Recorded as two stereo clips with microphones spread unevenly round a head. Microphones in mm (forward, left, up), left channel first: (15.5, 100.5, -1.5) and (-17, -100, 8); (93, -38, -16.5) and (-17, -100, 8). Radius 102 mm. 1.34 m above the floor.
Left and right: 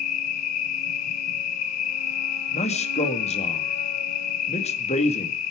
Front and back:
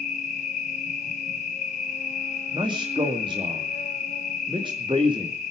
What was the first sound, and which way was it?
An insect, 85° left.